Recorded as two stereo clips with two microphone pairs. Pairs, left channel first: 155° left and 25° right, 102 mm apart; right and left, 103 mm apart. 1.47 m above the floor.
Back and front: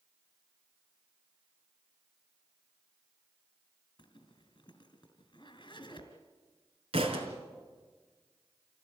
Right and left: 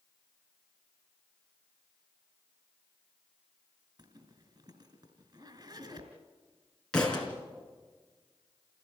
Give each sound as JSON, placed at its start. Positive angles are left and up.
{"t": 4.0, "sound": "a zipper", "azimuth_deg": 125, "distance_m": 2.5}
{"t": 6.9, "sound": "a thud", "azimuth_deg": -10, "distance_m": 4.0}